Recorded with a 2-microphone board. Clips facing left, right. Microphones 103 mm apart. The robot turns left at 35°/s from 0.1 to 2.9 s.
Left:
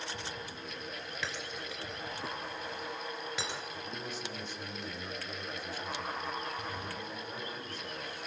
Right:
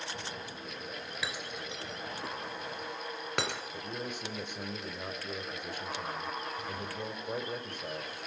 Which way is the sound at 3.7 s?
55° right (ahead or behind).